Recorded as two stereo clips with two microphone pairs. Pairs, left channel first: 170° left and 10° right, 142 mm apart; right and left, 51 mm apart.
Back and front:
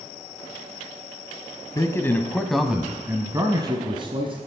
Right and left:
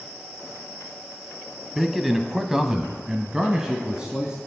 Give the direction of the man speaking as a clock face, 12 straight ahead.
6 o'clock.